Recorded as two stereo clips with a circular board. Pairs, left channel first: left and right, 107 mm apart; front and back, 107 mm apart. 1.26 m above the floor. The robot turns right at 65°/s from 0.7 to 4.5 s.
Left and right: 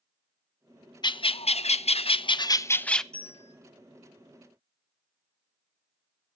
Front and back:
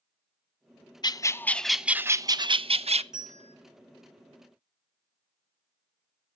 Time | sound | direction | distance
1.0 | a bird | 45° left | 0.5 m
3.1 | a bell | 95° right | 8.5 m